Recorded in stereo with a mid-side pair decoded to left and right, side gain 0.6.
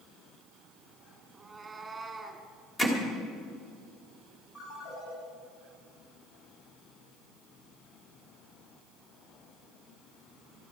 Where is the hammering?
20° left, 2.5 m.